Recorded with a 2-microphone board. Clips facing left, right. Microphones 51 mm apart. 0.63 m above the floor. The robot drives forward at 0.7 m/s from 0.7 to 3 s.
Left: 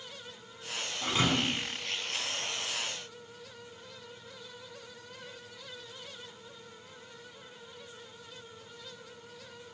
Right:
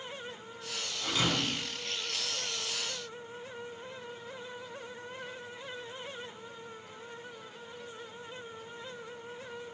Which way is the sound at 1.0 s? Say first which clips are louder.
Left 2 dB; 35° left (ahead or behind).